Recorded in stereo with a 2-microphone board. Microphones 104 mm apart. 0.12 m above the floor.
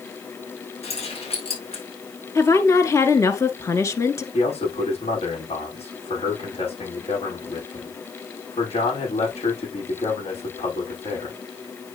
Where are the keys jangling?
75° left (ahead or behind), 5 m.